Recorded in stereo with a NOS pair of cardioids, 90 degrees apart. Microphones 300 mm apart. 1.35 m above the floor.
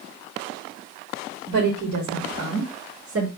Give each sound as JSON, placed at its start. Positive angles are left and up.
{"t": 1.5, "sound": "a woman speaking", "azimuth_deg": -70, "distance_m": 2.5}